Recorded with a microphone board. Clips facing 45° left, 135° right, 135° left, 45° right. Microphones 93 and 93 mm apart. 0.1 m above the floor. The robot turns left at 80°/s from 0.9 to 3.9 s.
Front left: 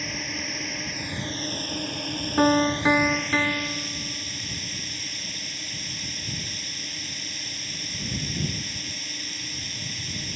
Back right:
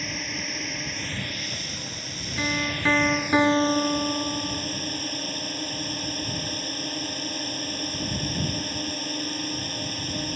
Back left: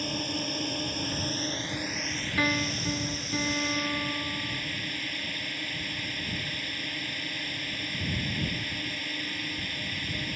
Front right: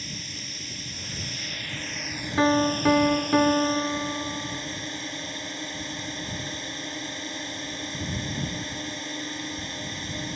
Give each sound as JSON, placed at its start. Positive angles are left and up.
{"t": 0.0, "sound": "a drone", "azimuth_deg": 135}
{"t": 2.4, "sound": "a piano", "azimuth_deg": 10}